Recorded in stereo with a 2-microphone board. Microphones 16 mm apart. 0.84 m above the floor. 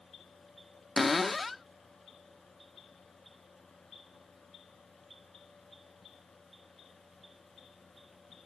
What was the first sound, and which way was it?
A cupboard door, 5° left (ahead or behind).